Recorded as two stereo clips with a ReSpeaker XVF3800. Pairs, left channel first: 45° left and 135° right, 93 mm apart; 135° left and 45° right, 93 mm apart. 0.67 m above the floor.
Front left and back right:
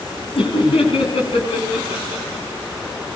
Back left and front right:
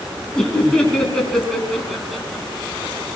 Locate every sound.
0.3 s laughter: 55° left, 10 m; by 2.5 s 50° left, 7 m